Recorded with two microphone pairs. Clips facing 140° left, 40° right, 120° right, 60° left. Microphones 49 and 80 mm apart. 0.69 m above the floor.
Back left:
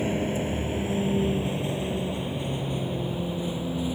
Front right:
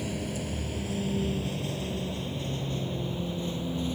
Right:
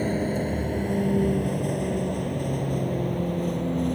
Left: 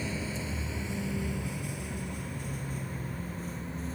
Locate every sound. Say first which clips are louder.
0.0 s a vehicle: back left 7 dB, right 10 dB; 160° right; by 4.0 s 140° right